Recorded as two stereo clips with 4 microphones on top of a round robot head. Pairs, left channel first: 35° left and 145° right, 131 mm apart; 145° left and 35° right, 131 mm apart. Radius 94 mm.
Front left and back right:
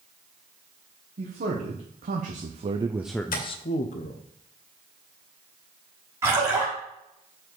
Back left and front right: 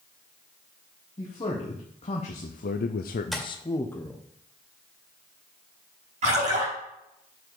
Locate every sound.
1.2 s a man speaking: 160° right, 1.7 m; by 4.2 s 60° left, 1.1 m
3.3 s tapping: 55° left, 1.9 m
6.2 s a splash: 70° right, 5.5 m